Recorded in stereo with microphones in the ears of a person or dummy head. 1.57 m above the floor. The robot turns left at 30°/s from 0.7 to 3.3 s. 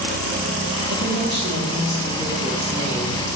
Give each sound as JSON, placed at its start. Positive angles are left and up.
{"t": 0.9, "sound": "a woman speaking", "azimuth_deg": -105, "distance_m": 4.0}